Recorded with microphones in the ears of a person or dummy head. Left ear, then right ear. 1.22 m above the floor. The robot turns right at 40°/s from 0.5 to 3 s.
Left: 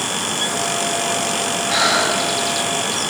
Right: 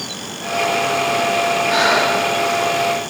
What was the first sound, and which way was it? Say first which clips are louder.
Breathing: even; 10° right (ahead or behind).